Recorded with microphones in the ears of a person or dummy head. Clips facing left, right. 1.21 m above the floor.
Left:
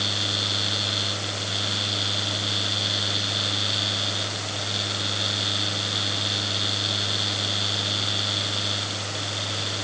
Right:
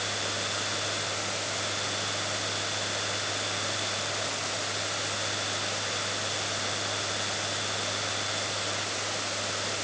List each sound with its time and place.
0.0 s a fan: 50° left (ahead or behind)